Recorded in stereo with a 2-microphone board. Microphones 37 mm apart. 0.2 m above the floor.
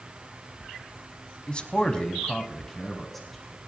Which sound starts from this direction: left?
A man speaking, at 1.5 s.